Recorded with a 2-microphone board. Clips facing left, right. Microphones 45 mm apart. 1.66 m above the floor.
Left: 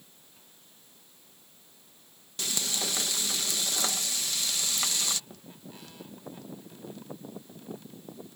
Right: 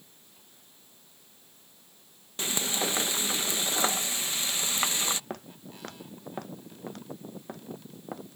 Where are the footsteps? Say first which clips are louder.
Right 6 dB; 60° right (ahead or behind); by 8.2 s 65° right (ahead or behind).